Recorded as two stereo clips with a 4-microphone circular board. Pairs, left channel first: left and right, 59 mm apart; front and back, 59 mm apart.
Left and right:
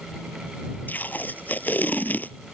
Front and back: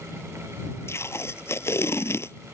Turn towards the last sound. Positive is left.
turn(degrees=35)